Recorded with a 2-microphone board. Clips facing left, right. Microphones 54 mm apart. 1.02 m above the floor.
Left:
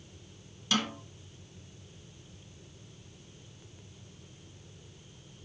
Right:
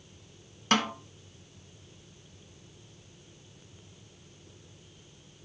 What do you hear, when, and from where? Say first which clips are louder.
0.7 s a snare drum: right 4 dB; 50° right (ahead or behind), 0.9 m